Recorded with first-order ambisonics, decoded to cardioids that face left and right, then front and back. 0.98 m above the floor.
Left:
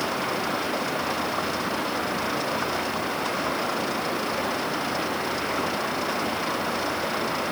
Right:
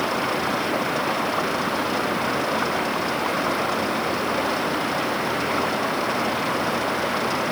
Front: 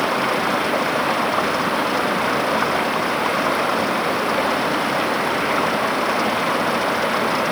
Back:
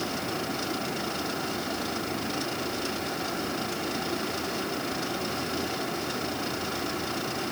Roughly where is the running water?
Ahead.